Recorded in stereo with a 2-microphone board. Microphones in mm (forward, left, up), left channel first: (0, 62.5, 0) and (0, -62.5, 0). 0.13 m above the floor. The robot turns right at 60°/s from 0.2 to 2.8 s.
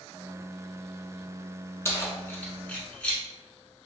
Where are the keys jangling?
20° left (ahead or behind), 0.8 m; by 3.2 s 10° left (ahead or behind), 0.8 m.